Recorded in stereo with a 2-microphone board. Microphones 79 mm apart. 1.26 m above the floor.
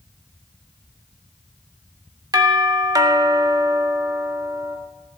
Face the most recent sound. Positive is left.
turn(degrees=-50)  # may be behind; listen again after turning